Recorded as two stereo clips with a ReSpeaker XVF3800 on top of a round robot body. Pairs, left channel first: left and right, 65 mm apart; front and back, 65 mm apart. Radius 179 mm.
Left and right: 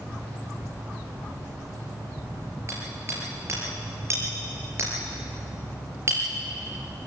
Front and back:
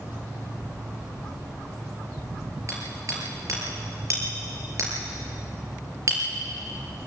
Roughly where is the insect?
Behind right.